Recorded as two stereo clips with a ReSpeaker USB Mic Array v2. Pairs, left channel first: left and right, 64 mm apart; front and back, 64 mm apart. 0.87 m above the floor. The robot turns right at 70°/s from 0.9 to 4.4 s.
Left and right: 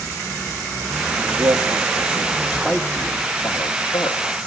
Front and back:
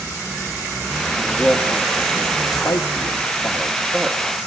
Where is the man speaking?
110° right, 1.9 m; by 4.2 s 100° left, 1.9 m.